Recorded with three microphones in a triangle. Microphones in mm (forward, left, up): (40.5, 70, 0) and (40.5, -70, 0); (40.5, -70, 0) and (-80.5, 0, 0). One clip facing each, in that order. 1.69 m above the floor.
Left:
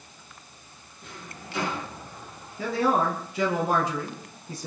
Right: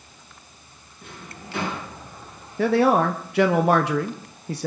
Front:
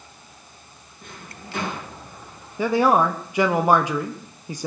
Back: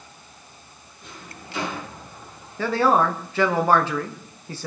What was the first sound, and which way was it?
A drawer, 65° right.